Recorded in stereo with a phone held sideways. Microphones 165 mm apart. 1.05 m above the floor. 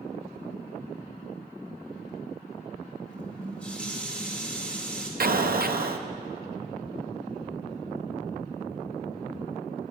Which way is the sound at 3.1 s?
5° left (ahead or behind).